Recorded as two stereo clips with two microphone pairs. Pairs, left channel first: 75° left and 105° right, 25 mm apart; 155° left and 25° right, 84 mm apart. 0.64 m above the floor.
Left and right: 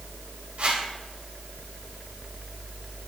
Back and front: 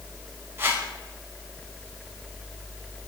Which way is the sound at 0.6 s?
80° right.